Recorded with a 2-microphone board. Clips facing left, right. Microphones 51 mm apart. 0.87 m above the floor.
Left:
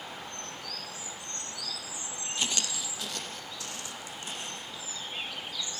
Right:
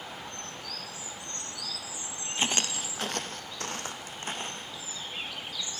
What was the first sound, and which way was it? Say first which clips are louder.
Footsteps: right 4 dB; 35° right (ahead or behind).